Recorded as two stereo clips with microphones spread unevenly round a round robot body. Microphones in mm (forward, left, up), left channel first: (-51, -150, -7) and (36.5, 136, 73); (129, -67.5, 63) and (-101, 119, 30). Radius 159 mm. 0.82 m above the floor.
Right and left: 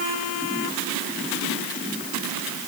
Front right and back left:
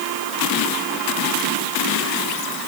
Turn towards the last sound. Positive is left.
No sound to turn to.